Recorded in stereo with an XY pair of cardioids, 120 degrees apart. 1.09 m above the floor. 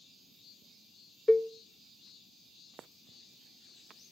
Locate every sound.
1.3 s a cowbell: 5° left, 0.5 m